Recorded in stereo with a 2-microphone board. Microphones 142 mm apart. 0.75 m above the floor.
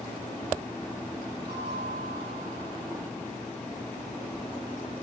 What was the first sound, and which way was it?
A bell, 40° right (ahead or behind).